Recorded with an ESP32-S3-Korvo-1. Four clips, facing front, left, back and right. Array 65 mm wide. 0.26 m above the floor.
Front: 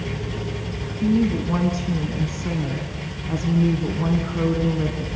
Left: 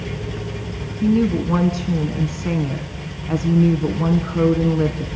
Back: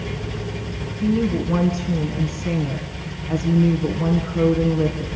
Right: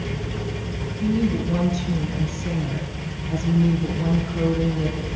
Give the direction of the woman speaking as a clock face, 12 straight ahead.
9 o'clock.